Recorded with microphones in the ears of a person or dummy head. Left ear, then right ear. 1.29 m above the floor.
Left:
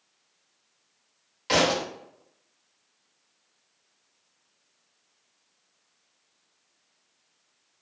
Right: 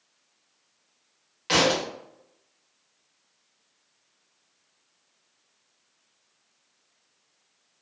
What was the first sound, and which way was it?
A thud, 5° right (ahead or behind).